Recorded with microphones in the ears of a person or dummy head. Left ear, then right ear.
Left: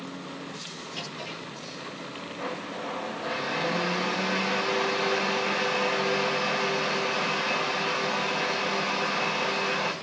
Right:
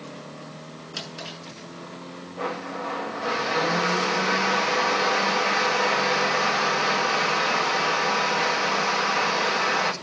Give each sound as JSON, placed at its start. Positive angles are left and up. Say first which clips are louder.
{"t": 0.9, "sound": "a drawer", "louder": "right 3 dB", "side_deg": -55, "distance_m": 6.0}
{"t": 2.4, "sound": "a blender", "louder": "right 5 dB", "side_deg": -40, "distance_m": 1.9}